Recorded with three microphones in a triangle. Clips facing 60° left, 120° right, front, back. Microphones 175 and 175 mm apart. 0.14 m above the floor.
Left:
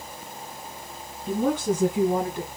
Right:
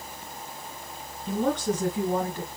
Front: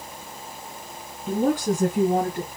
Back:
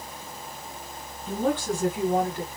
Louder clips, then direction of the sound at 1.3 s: Left 2 dB, front 4 dB; 25° right.